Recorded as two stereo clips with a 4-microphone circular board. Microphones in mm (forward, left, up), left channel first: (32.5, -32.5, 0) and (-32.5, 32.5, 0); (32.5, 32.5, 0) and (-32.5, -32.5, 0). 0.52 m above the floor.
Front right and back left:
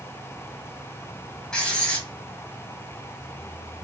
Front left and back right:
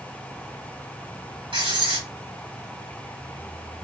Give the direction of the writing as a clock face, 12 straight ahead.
4 o'clock.